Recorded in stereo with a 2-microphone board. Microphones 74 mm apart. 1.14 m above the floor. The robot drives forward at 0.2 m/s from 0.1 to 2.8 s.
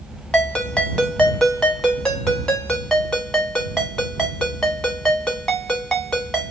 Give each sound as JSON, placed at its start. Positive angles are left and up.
{"t": 0.3, "sound": "a ringtone", "side_deg": 10, "distance_m": 1.1}